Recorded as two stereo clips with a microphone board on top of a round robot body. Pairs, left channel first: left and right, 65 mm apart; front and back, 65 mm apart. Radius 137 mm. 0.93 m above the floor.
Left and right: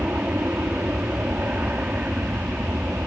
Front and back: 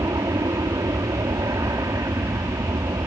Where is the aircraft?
155° right.